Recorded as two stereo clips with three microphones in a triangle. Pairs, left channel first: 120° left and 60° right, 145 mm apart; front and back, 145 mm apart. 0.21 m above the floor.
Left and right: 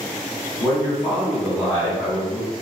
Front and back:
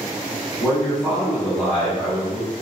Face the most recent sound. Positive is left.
turn(degrees=60)